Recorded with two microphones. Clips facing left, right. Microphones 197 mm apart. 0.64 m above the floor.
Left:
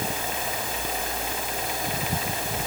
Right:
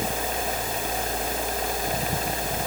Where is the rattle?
I don't hear a rattle.